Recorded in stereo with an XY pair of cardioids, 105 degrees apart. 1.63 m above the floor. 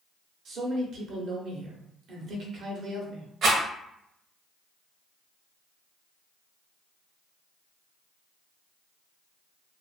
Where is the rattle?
65° right, 1.2 m.